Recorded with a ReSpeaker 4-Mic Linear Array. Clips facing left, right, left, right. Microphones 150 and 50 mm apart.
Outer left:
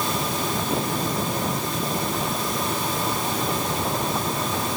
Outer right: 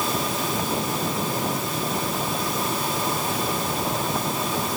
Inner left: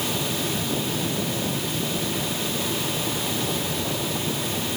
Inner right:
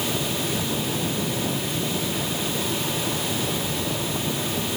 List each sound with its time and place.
Only background noise.